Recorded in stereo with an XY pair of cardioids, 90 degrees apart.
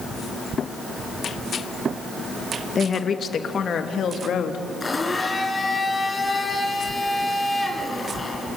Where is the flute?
I don't hear a flute.